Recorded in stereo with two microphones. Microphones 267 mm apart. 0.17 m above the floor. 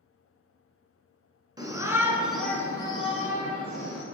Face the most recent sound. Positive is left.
turn(degrees=40)  # may be behind; listen again after turning